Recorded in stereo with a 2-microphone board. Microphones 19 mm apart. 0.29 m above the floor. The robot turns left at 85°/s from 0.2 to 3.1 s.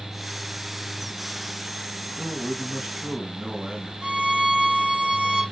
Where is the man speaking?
45° right, 2.5 m; by 3.9 s 125° right, 2.5 m.